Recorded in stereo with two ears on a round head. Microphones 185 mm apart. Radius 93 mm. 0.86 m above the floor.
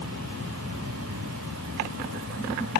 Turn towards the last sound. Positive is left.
turn(degrees=-75)  # may be behind; listen again after turning